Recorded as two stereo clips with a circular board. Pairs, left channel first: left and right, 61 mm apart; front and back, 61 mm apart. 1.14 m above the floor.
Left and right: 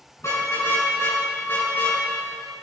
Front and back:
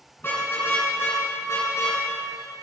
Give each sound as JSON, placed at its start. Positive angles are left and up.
{"t": 0.2, "sound": "a car horn", "azimuth_deg": 55, "distance_m": 5.5}